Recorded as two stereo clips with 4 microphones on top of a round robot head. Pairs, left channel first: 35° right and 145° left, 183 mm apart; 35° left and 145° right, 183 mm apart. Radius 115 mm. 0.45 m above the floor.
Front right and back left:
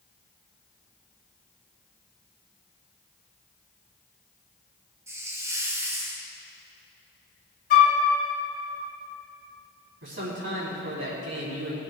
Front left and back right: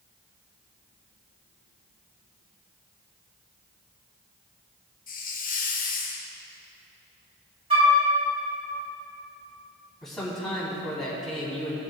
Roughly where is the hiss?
Left.